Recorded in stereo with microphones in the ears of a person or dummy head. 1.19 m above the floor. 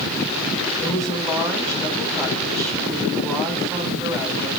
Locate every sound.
0.8 s a woman speaking: centre (ahead or behind), 5 m